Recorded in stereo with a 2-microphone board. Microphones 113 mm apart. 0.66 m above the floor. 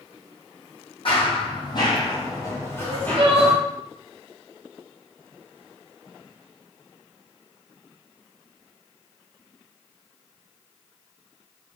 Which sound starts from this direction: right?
Crying, at 2.8 s.